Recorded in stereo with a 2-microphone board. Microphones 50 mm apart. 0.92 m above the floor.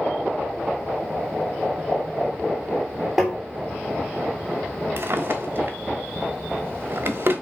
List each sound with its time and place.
3.2 s tapping: 5° right (ahead or behind), 3 m
5.0 s a drawer: 50° right (ahead or behind), 1.2 m